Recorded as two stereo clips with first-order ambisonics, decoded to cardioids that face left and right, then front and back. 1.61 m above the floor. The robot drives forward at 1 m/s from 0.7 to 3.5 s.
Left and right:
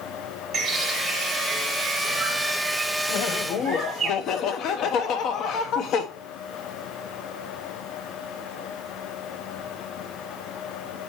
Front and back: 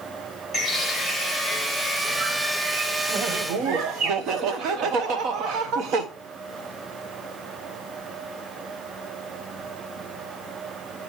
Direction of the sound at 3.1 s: 115° left.